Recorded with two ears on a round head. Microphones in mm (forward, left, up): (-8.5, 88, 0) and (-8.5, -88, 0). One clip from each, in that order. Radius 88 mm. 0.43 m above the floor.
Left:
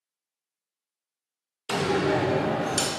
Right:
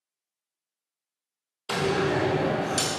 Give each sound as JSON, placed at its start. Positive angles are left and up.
{"t": 1.7, "sound": "a door slam", "side_deg": 15, "distance_m": 0.7}